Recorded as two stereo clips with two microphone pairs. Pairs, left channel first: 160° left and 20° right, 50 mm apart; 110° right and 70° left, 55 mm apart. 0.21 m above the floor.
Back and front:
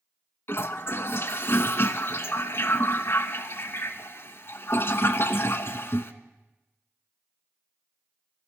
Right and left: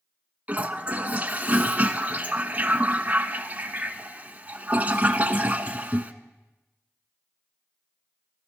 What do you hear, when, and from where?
0.5 s a toilet flushing: 135° left, 0.8 m